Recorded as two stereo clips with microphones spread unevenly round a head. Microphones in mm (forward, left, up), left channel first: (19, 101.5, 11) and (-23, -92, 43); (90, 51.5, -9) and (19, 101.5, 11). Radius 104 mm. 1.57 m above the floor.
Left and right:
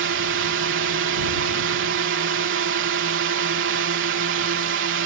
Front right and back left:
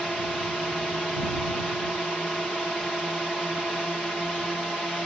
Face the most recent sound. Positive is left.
turn(degrees=-125)